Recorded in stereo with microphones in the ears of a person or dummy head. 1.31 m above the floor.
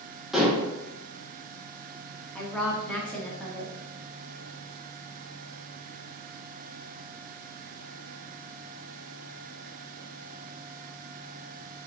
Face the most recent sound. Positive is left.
turn(degrees=5)  # may be behind; listen again after turning